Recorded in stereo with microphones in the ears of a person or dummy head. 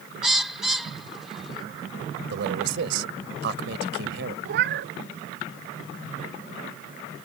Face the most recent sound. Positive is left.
turn(degrees=-65)  # may be behind; listen again after turning